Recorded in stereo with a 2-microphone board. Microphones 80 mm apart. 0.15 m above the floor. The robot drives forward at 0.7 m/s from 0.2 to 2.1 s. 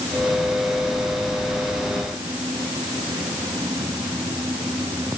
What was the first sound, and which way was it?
Only background noise.